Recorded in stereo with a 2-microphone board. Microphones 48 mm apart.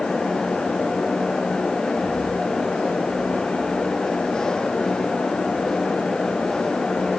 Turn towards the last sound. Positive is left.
No sound to turn to.